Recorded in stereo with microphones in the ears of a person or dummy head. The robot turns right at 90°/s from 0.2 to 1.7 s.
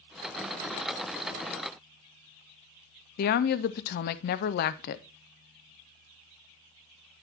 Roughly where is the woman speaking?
Left.